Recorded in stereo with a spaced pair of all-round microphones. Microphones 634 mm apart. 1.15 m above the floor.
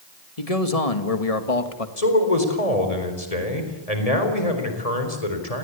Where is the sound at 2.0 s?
80° left, 4 m.